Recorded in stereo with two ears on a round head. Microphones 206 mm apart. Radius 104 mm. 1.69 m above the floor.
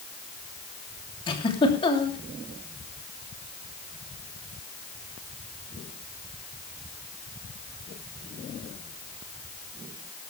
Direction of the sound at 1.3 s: 20° left (ahead or behind).